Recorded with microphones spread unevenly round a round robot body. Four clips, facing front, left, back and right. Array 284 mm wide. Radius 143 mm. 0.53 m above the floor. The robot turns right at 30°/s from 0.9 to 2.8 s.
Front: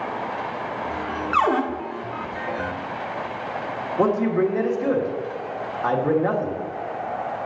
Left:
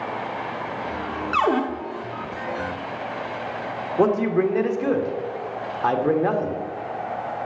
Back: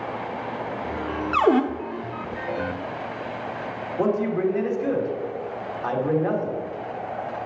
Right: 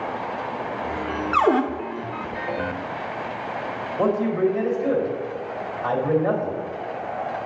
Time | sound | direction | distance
1.3 | a cupboard door | 175° right | 0.9 m
4.0 | a man speaking | 80° left | 1.8 m